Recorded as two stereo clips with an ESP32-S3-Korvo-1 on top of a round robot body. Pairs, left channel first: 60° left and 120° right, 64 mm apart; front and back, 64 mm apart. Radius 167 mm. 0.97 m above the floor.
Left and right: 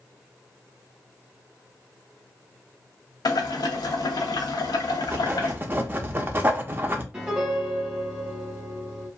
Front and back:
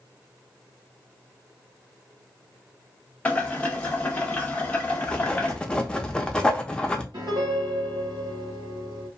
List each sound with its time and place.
3.2 s boiling: 65° left, 0.9 m
5.0 s writing: 75° right, 0.7 m
7.1 s a piano: 165° left, 0.6 m